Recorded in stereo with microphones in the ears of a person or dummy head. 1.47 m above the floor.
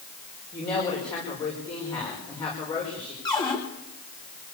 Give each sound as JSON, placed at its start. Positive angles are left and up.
{"t": 0.5, "sound": "a woman speaking", "side_deg": 25, "distance_m": 5.5}
{"t": 3.2, "sound": "a cupboard door", "side_deg": 20, "distance_m": 5.0}